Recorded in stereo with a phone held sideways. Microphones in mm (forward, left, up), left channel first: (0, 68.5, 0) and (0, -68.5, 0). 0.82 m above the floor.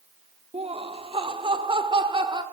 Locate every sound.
0.5 s laughter: 45° right (ahead or behind), 1.6 m; by 2.4 s 35° right (ahead or behind), 2.5 m